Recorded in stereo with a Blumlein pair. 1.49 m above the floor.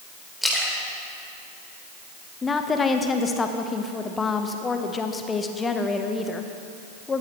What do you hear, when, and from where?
0.4 s a splash: straight ahead, 3.5 m
2.4 s a woman speaking: 15° left, 1.3 m